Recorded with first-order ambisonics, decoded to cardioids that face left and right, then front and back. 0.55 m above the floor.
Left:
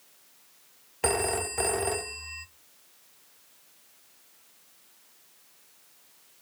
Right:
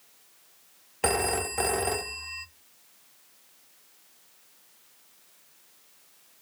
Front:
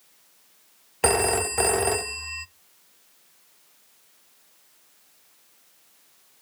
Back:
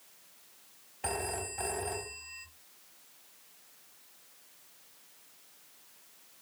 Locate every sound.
1.0 s a phone ringing: 5° right, 0.5 m